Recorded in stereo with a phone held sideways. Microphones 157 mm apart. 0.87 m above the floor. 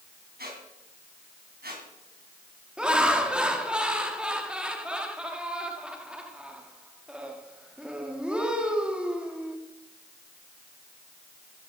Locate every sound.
0.4 s a squeak: 85° right, 3.5 m
2.8 s laughter: 5° right (ahead or behind), 1.9 m